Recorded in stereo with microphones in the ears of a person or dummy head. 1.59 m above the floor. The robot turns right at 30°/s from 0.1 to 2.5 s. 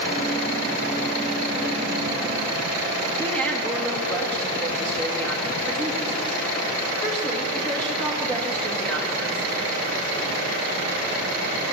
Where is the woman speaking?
5° left (ahead or behind), 2 m.